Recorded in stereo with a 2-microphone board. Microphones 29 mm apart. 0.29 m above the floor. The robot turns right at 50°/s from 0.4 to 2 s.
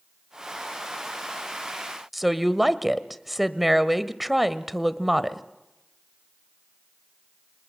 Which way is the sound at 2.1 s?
5° right (ahead or behind).